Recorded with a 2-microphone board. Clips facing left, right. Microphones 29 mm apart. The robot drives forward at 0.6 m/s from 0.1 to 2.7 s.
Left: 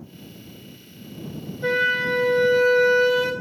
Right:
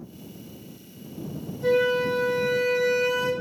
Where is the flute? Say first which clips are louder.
Left 1 dB; 45° left (ahead or behind), 0.7 m; by 3.3 s 40° left (ahead or behind), 0.8 m.